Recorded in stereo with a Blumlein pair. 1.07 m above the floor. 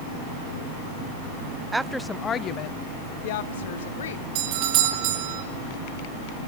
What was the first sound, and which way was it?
A woman speaking, 10° right.